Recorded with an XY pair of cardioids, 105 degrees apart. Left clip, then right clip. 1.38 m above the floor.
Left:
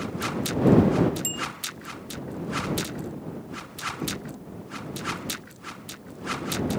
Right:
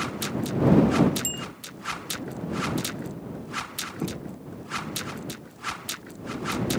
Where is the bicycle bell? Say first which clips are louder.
Left 2 dB; straight ahead.